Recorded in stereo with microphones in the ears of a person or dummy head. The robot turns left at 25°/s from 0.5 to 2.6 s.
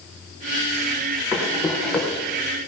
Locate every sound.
1.3 s running footsteps: 10° right (ahead or behind), 4.5 m; by 2.2 s 15° left (ahead or behind), 4.5 m